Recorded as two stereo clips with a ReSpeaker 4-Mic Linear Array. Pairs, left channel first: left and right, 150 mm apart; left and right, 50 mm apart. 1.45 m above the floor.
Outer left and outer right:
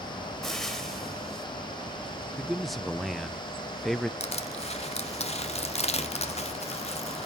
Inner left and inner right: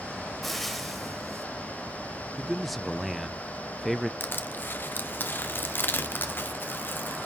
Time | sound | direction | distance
0.4 | frying | 5° left (ahead or behind) | 2 m
2.4 | a man speaking | centre (ahead or behind) | 0.5 m
4.2 | crushing | 45° left (ahead or behind) | 1.0 m